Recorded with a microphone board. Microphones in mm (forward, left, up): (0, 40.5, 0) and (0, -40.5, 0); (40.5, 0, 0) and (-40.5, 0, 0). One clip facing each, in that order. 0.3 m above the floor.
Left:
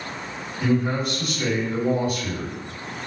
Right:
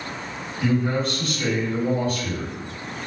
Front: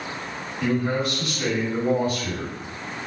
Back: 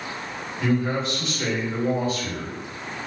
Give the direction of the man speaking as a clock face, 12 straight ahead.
7 o'clock.